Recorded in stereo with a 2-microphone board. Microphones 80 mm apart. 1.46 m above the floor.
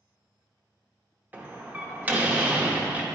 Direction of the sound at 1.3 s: 20° right (ahead or behind).